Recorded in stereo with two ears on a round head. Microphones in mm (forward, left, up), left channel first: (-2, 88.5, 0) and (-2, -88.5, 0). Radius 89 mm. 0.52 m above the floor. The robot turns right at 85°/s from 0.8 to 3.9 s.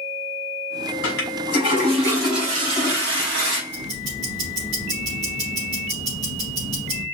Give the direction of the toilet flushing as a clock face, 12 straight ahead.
10 o'clock.